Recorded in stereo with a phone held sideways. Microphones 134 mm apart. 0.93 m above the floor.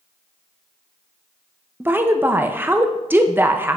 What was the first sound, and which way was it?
A woman speaking, 15° right (ahead or behind).